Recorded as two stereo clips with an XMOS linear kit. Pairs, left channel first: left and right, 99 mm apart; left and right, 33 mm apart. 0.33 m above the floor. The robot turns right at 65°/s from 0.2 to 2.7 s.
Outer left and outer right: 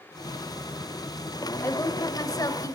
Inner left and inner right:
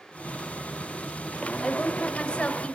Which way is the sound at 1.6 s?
50° left.